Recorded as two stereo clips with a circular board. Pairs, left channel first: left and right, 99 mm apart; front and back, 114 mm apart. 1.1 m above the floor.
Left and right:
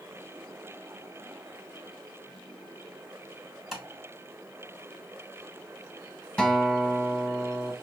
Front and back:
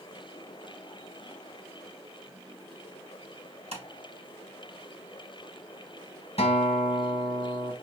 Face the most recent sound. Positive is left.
turn(degrees=10)